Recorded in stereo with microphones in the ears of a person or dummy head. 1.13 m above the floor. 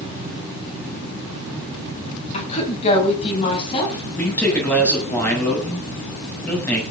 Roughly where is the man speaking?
Centre.